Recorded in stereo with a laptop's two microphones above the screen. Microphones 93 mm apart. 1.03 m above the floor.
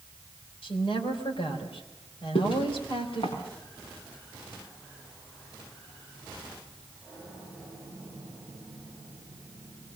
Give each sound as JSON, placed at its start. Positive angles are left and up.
{"t": 0.6, "sound": "a woman speaking", "side_deg": 80, "distance_m": 4.0}
{"t": 2.4, "sound": "footsteps", "side_deg": 70, "distance_m": 6.5}